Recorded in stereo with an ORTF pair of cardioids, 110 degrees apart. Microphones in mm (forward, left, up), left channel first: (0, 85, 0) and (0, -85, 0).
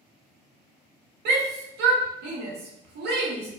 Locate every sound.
1.2 s a shout: 65° right, 0.9 m